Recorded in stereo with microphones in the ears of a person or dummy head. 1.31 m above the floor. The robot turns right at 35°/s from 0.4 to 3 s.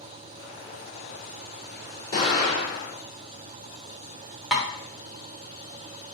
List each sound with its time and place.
2.1 s an explosion: 30° left (ahead or behind), 1.9 m; by 2.9 s 55° left (ahead or behind), 1.9 m
4.5 s tapping: 5° right (ahead or behind), 0.6 m